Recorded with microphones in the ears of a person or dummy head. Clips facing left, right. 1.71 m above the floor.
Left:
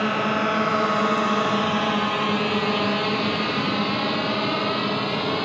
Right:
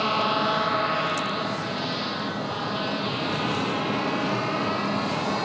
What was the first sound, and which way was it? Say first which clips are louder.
A drone: left 2 dB; 15° left (ahead or behind).